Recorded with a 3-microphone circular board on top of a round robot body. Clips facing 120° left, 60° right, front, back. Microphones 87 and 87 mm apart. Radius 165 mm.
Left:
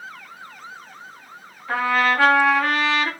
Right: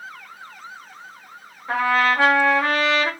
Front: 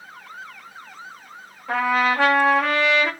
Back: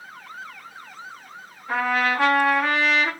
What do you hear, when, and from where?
1.7 s a trumpet: 5° left, 0.8 m